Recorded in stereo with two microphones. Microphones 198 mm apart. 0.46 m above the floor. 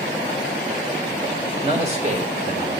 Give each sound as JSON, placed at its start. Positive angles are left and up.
{"t": 1.6, "sound": "a man speaking", "side_deg": -25, "distance_m": 1.4}